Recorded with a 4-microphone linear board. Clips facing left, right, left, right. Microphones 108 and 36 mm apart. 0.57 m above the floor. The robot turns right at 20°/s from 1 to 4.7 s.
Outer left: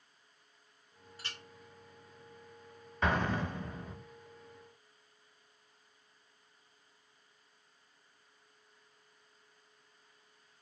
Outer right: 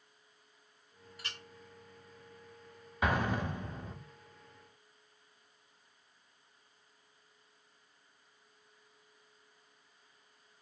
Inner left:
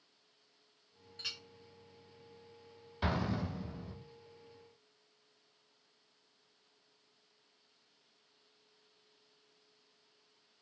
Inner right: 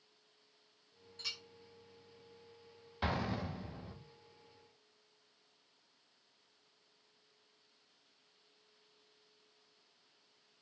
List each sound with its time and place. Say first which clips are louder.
1.2 s a clink: even, inner left 1 dB; 35° left (ahead or behind), 2.5 m; by 1.4 s 40° left (ahead or behind), 2.5 m
3.0 s an explosion: even, inner left 2 dB; 10° right (ahead or behind), 1.1 m; by 4.0 s 25° right (ahead or behind), 1.1 m